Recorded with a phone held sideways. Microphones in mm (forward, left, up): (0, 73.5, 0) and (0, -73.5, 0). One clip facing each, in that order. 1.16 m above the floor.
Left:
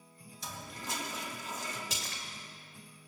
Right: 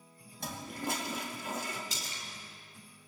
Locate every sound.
0.4 s a toilet flushing: 55° right (ahead or behind), 2 m
1.9 s a splash: 80° left, 2.5 m